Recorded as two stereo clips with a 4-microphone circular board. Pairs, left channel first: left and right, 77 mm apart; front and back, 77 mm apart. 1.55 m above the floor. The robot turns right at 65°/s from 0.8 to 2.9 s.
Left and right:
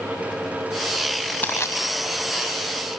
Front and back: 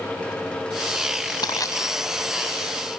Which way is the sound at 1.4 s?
25° left.